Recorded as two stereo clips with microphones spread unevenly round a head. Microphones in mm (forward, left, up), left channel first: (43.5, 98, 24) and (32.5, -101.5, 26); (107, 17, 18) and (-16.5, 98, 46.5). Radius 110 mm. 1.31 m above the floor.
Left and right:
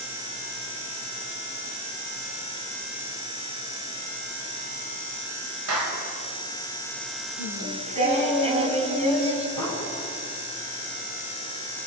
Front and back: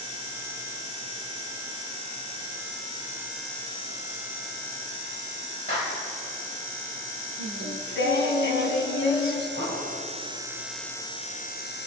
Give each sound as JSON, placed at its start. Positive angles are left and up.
{"t": 5.7, "sound": "a clap", "azimuth_deg": -95, "distance_m": 6.0}
{"t": 7.4, "sound": "singing", "azimuth_deg": -35, "distance_m": 3.5}
{"t": 9.6, "sound": "an explosion", "azimuth_deg": -65, "distance_m": 9.5}